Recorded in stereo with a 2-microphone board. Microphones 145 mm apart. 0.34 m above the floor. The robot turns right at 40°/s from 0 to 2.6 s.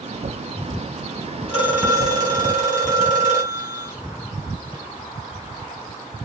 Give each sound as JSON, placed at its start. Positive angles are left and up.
{"t": 1.5, "sound": "a phone ringing", "azimuth_deg": -130, "distance_m": 1.8}